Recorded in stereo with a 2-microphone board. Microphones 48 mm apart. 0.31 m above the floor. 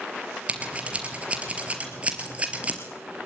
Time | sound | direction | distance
0.5 | scissors | 25° right (ahead or behind) | 4 m